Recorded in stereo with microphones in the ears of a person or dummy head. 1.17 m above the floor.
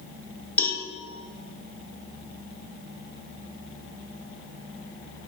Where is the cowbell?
15° left (ahead or behind), 2 m.